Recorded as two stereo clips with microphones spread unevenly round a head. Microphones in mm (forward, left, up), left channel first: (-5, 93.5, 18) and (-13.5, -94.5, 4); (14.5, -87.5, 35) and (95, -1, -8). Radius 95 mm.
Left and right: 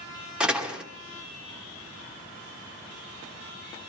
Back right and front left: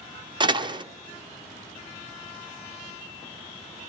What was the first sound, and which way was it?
A door slam, 5° right.